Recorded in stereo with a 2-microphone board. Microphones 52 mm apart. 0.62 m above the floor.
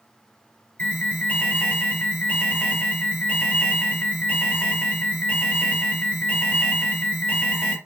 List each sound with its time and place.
0.8 s an alarm: 30° left (ahead or behind), 1.7 m